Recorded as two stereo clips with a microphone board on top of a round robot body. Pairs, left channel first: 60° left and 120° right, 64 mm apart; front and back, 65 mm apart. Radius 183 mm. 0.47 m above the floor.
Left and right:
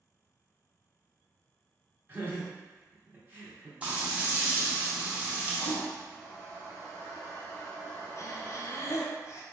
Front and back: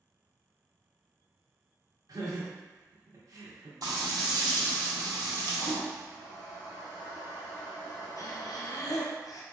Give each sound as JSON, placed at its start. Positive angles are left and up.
{"t": 2.1, "sound": "laughter", "azimuth_deg": -175, "distance_m": 1.6}
{"t": 3.8, "sound": "frying", "azimuth_deg": 170, "distance_m": 1.3}
{"t": 5.6, "sound": "a toilet flushing", "azimuth_deg": -20, "distance_m": 0.7}
{"t": 8.2, "sound": "breathing", "azimuth_deg": 25, "distance_m": 0.7}